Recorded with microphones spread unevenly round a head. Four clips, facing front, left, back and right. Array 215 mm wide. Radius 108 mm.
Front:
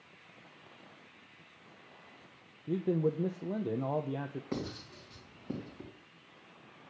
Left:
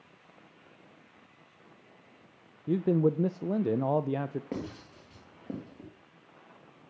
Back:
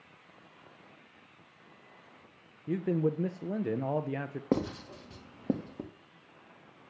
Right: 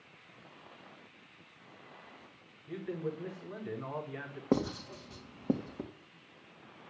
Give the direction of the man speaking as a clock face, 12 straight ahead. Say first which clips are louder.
Left 12 dB, back 1 dB; 9 o'clock.